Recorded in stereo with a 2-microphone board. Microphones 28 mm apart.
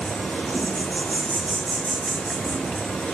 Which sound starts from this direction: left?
An insect, at 0.0 s.